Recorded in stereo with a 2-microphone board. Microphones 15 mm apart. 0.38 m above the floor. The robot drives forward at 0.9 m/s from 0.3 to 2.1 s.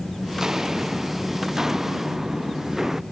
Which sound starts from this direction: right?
Footsteps, at 0.3 s.